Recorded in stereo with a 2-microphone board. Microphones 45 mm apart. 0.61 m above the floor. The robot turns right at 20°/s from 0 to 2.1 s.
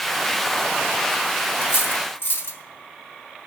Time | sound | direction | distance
1.6 | cutlery clinking | 70° left (ahead or behind) | 1.6 m